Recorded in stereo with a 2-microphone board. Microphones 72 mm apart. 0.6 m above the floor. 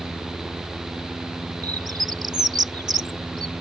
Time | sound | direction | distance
1.6 | a bird | 70° right (ahead or behind) | ?